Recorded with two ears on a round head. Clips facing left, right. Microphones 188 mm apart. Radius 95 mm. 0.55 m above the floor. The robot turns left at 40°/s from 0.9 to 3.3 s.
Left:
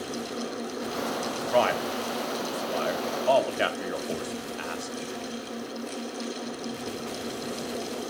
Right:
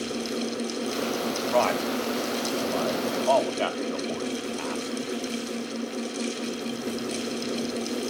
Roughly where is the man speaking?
Centre.